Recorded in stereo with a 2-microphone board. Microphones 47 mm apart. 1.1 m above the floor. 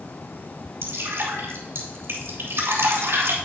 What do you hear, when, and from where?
0.8 s dripping: 55° right (ahead or behind), 4 m